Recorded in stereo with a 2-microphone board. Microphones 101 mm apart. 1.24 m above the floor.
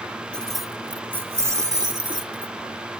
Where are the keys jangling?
10° left (ahead or behind); by 2.5 s 55° right (ahead or behind).